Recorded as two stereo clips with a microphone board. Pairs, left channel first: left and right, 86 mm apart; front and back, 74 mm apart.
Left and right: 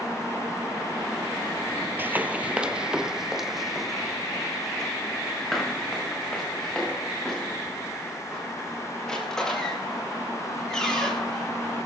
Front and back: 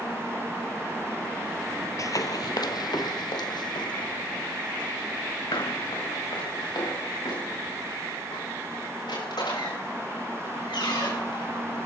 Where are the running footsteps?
30° right, 1.0 m; by 11.5 s 10° left, 9.5 m.